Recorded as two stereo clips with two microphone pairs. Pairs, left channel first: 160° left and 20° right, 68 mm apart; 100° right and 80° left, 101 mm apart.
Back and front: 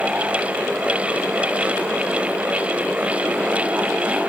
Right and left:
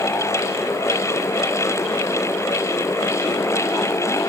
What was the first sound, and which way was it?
Only background noise.